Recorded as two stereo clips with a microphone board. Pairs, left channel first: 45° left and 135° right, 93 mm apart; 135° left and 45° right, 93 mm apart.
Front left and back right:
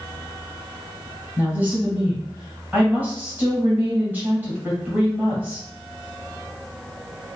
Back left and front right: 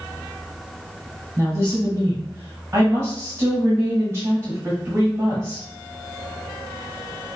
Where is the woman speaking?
75° right, 1.7 m.